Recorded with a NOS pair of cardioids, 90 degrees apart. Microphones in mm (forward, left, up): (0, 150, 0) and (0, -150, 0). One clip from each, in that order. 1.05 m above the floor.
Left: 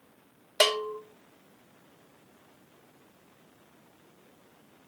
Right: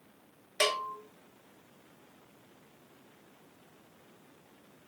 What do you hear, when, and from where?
0.6 s a bell: 20° left, 2.5 m